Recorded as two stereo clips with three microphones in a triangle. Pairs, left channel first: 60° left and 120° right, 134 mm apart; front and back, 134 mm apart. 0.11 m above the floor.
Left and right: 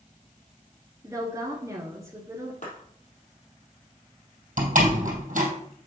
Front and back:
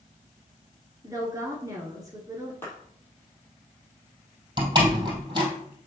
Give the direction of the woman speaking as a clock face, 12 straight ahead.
5 o'clock.